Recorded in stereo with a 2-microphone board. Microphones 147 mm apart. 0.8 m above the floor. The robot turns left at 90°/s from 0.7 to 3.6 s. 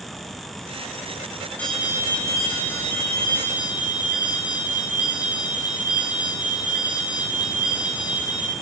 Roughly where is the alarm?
Ahead.